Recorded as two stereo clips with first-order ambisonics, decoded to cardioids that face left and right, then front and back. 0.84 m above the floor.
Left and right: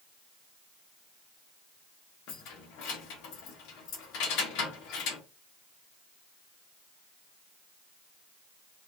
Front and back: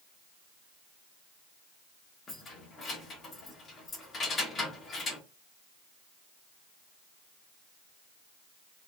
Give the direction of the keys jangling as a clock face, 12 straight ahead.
10 o'clock.